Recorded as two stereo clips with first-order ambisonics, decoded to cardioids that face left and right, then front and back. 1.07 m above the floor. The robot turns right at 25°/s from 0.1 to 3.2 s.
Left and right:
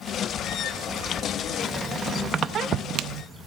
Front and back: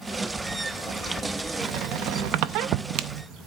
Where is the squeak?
175° right, 0.6 m; by 3.2 s 135° right, 0.6 m.